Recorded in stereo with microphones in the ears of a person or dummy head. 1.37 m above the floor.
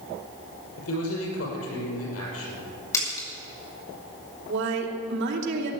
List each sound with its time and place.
0.8 s a man speaking: 85° left, 6 m
2.9 s a splash: 20° left (ahead or behind), 6 m
4.5 s a woman speaking: 70° right (ahead or behind), 3 m